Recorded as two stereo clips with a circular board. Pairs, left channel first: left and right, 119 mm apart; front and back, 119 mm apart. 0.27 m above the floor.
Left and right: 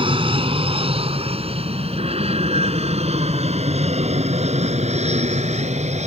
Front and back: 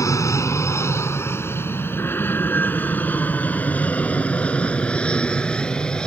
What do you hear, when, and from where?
0.0 s an aircraft: 60° right; by 6.1 s 85° right